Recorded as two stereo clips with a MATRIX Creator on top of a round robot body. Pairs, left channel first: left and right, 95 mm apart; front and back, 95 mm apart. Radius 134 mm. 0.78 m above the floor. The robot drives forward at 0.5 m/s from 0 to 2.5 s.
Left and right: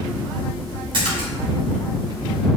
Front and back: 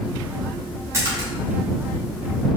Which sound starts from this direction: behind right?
A splash, at 0.9 s.